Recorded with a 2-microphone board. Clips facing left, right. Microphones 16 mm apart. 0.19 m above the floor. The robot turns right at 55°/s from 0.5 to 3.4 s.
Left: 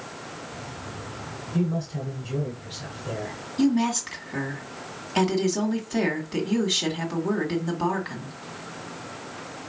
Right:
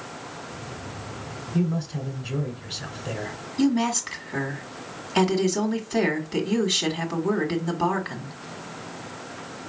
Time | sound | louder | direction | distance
1.5 | a man speaking | right 1 dB | 5° right (ahead or behind) | 1.1 m
3.6 | a woman speaking | even | 15° right (ahead or behind) | 1.4 m